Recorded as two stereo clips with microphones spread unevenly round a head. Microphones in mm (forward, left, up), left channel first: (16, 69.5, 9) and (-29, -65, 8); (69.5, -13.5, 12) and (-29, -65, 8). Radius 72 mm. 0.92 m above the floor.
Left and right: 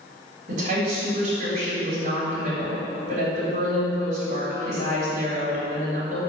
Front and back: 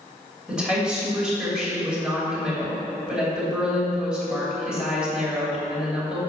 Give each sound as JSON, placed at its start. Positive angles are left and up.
{"t": 0.5, "sound": "a woman speaking", "azimuth_deg": -70, "distance_m": 2.5}